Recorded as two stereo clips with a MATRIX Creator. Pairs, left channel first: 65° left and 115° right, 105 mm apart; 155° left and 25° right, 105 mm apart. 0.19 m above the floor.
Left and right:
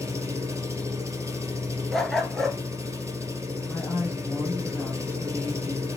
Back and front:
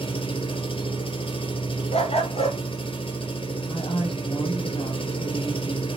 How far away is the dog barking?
About 1.4 m.